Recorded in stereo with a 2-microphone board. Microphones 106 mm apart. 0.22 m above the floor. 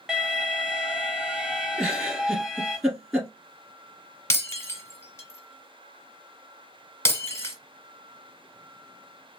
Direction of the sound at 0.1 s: 5° right (ahead or behind).